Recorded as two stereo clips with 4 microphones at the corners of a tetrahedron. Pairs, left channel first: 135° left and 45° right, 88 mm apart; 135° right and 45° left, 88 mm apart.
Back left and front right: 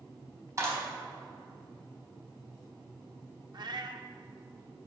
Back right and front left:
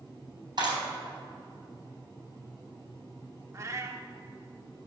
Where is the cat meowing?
10° right, 0.8 m.